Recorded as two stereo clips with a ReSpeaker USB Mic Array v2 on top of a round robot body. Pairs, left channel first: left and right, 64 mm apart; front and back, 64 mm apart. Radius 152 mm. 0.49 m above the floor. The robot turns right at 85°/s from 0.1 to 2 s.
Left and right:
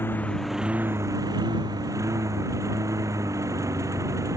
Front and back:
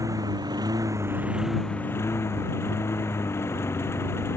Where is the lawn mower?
145° left; by 4.4 s 50° right.